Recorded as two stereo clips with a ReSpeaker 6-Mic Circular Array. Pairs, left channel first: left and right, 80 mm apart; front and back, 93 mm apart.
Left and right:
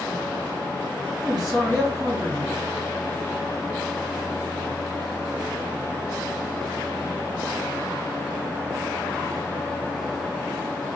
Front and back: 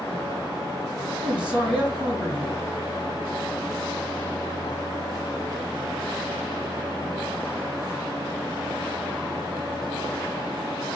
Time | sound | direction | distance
1.2 | a man speaking | 105° right | 3 m